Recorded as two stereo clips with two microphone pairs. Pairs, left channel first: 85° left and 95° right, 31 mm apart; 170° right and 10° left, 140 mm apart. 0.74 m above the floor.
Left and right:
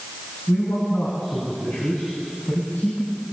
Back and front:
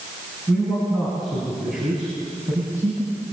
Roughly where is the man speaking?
Left.